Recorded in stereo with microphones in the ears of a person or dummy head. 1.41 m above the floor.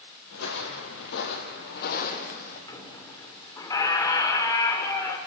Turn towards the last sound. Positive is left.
turn(degrees=15)  # may be behind; listen again after turning